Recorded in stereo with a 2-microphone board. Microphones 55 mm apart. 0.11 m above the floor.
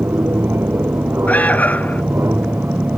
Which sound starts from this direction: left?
An alarm, at 1.3 s.